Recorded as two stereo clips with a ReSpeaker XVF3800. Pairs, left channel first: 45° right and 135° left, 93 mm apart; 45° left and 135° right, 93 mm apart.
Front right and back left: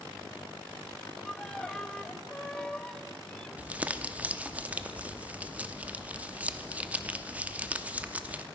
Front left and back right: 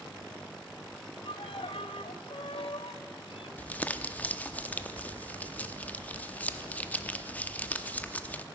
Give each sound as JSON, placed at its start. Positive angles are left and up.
{"t": 1.2, "sound": "a violin", "azimuth_deg": 35, "distance_m": 0.5}
{"t": 3.6, "sound": "crumpling", "azimuth_deg": 90, "distance_m": 0.7}